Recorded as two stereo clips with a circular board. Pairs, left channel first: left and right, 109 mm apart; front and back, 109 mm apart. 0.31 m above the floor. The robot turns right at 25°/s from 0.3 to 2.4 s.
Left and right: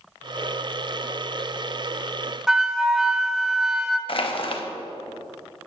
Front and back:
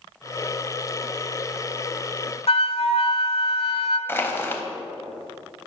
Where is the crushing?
65° left, 0.5 m.